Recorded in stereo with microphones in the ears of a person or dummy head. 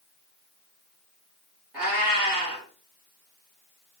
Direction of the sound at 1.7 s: 5° right (ahead or behind).